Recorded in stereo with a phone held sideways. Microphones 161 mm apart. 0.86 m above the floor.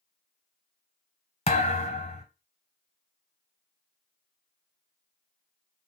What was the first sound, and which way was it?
A thud, 40° left (ahead or behind).